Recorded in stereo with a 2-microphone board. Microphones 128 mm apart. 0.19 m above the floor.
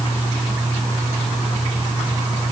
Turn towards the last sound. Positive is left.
No sound to turn to.